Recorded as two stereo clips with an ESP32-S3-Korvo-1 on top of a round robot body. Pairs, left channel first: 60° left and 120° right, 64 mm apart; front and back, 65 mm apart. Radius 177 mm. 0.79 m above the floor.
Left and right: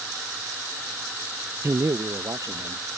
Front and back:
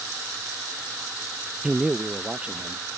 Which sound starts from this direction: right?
A man speaking, at 1.6 s.